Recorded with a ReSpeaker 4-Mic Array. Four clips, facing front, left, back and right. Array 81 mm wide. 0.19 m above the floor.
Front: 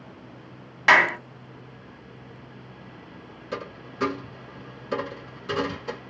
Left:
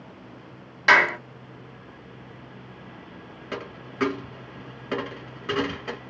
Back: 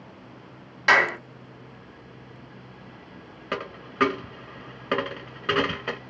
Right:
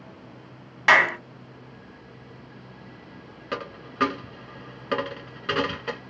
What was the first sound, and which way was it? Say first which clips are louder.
A clap: even, front 2 dB; 50° right.